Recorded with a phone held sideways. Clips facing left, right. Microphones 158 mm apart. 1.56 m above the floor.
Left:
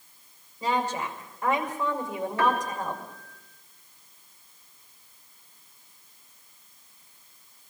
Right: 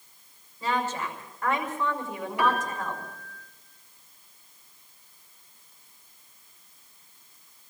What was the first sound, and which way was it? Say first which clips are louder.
A woman speaking: left 1 dB; 15° left (ahead or behind).